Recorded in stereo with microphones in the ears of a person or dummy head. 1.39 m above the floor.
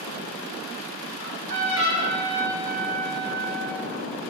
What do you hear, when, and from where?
1.2 s a trumpet: 45° right (ahead or behind), 0.9 m